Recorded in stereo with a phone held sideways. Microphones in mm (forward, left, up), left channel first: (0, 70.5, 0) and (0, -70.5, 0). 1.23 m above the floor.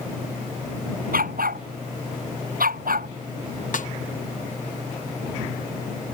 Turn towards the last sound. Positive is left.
turn(degrees=65)  # may be behind; listen again after turning